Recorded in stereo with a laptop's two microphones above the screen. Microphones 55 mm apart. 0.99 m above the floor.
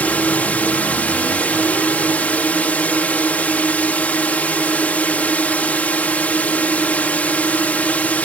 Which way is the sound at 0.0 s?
30° left (ahead or behind).